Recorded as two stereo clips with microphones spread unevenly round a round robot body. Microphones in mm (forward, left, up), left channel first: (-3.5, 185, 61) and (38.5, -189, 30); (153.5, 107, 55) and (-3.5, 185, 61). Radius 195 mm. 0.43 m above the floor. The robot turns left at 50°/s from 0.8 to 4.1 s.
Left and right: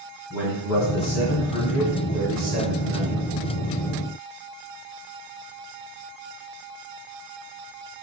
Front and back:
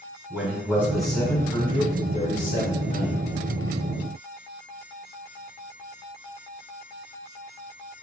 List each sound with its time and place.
0.3 s a man speaking: 70° left, 1.9 m; by 3.2 s 45° right, 1.9 m